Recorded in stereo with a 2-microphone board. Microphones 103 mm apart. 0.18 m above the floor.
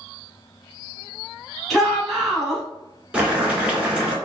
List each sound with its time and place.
1.7 s a shout: centre (ahead or behind), 1.2 m
3.1 s boiling: 10° right (ahead or behind), 1.3 m